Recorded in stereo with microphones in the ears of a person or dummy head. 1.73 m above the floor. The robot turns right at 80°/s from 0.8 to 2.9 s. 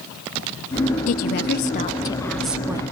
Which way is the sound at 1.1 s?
70° left.